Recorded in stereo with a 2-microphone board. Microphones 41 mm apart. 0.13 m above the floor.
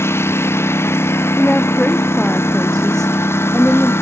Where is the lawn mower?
85° left; by 4.0 s 80° left.